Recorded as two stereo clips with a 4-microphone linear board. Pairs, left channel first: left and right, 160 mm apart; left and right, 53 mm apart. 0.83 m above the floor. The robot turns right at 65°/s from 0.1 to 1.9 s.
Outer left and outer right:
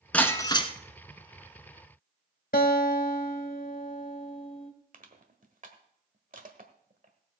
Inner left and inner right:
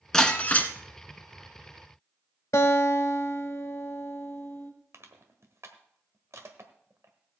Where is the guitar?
65° left (ahead or behind), 1.6 m.